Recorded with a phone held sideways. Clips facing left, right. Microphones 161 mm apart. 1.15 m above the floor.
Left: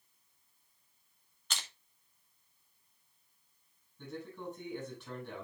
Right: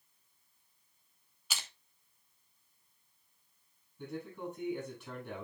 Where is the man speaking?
10° right (ahead or behind), 7 m.